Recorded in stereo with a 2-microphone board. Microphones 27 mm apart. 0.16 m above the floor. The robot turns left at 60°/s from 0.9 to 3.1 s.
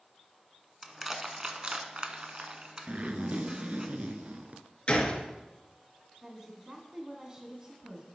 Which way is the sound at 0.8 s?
5° right (ahead or behind).